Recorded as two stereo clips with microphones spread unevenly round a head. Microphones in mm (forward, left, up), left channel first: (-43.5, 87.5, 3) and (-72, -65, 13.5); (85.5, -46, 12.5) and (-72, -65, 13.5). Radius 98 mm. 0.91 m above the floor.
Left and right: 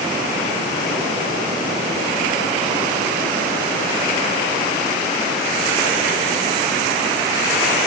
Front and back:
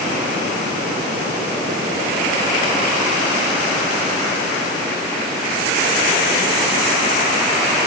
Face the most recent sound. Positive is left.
No sound to turn to.